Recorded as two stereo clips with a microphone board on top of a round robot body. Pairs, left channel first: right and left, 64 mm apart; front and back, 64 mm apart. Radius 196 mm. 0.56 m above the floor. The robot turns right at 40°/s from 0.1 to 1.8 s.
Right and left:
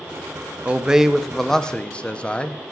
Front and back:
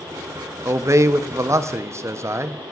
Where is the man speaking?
155° left, 0.9 m; by 2.7 s 155° right, 0.9 m.